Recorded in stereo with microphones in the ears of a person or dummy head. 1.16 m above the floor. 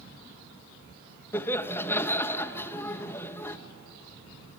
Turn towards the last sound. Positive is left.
turn(degrees=15)  # may be behind; listen again after turning